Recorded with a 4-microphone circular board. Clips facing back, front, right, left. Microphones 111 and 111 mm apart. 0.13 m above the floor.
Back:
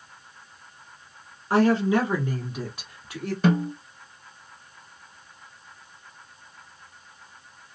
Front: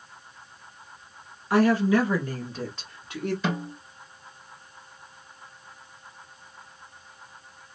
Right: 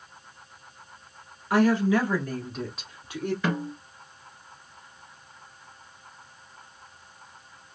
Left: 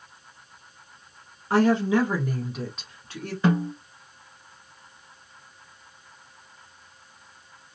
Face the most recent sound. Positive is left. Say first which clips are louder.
# back 7 dB, left 10 dB
turn(degrees=150)